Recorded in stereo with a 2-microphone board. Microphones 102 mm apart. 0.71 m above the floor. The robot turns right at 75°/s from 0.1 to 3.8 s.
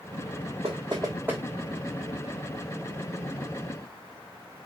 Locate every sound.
0.6 s knocking: 65° right (ahead or behind), 1.1 m; by 1.4 s 10° right (ahead or behind), 1.1 m